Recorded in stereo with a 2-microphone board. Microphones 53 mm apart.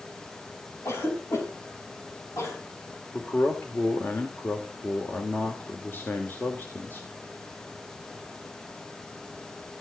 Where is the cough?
60° left (ahead or behind), 8 m.